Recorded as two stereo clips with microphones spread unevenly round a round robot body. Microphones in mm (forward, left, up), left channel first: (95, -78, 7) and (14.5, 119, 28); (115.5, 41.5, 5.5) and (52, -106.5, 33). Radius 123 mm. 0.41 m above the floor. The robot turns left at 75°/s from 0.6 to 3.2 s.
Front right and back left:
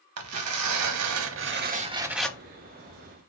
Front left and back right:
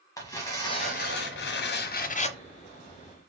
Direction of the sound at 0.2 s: 145° left.